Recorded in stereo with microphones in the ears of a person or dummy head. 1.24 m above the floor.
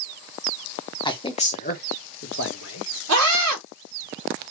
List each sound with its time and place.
1.1 s a man speaking: 20° left (ahead or behind), 1.1 m; by 2.9 s 70° left (ahead or behind), 1.6 m
3.1 s a scream: 80° right, 3 m